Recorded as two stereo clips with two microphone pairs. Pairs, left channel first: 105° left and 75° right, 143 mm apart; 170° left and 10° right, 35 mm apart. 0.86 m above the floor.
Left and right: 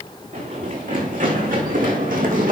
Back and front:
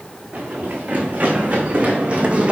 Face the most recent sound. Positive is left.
turn(degrees=-70)